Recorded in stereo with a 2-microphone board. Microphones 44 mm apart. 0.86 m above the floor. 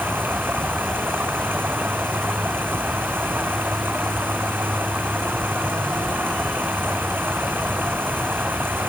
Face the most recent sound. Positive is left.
turn(degrees=-50)  # may be behind; listen again after turning